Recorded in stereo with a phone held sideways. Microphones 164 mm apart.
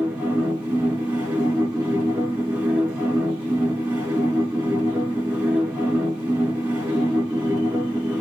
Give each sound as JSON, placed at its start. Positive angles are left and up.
{"t": 0.0, "sound": "a machine running", "side_deg": -10, "distance_m": 2.5}